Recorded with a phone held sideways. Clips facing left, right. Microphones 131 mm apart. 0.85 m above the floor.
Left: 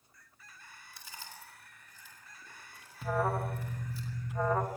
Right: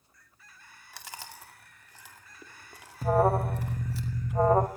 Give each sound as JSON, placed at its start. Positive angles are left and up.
{"t": 0.9, "sound": "chewing", "side_deg": -70, "distance_m": 2.5}
{"t": 3.0, "sound": "an alarm", "side_deg": -40, "distance_m": 0.9}